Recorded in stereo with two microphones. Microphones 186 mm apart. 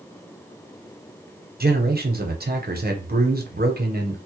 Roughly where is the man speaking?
Right.